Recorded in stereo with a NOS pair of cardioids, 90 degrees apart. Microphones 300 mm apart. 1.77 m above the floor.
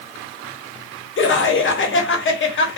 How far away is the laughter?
About 1.2 m.